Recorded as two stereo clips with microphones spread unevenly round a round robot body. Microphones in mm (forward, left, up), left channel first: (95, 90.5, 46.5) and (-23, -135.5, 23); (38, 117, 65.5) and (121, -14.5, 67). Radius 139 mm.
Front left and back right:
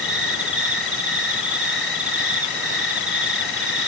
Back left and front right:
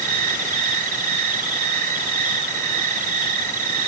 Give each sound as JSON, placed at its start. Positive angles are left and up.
{"t": 0.0, "sound": "an insect", "azimuth_deg": -30, "distance_m": 1.0}